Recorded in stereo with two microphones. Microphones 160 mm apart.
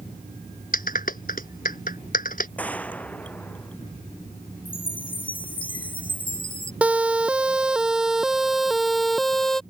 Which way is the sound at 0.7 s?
65° left (ahead or behind).